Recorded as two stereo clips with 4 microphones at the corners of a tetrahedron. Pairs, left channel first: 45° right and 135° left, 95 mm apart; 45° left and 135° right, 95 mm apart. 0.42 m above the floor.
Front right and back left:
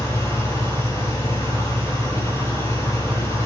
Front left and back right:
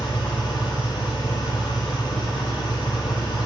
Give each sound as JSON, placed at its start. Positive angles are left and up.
{"t": 0.0, "sound": "an engine running", "azimuth_deg": 10, "distance_m": 8.5}